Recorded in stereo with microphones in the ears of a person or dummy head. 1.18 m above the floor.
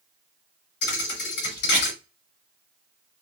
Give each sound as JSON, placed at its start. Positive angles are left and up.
{"t": 0.8, "sound": "a thud", "side_deg": 55, "distance_m": 1.7}